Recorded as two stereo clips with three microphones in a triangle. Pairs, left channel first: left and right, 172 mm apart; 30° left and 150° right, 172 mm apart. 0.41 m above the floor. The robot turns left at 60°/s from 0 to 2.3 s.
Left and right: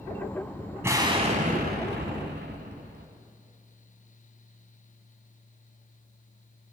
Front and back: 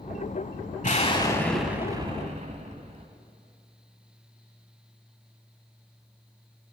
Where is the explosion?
15° right, 1.0 m; by 3.1 s 100° right, 1.0 m.